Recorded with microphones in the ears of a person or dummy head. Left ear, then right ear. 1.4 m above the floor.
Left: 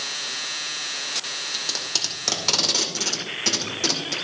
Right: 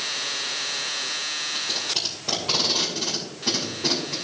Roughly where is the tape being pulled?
Left.